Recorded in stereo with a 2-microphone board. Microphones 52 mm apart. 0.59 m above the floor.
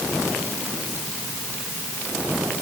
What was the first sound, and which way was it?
Only background noise.